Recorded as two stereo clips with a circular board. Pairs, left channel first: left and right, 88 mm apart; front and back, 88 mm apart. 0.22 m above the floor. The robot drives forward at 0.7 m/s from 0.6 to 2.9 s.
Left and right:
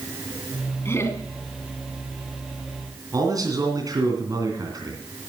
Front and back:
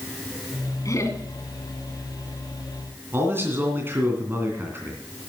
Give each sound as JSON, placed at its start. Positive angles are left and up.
{"t": 0.8, "sound": "laughter", "azimuth_deg": 35, "distance_m": 2.0}
{"t": 3.1, "sound": "a man speaking", "azimuth_deg": -125, "distance_m": 2.5}